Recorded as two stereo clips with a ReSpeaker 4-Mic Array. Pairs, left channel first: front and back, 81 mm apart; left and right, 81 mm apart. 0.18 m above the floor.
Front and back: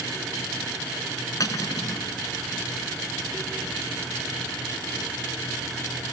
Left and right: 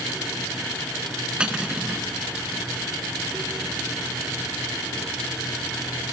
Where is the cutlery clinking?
15° right, 1.2 m.